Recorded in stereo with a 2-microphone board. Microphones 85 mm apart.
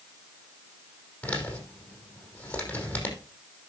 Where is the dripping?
I don't hear dripping.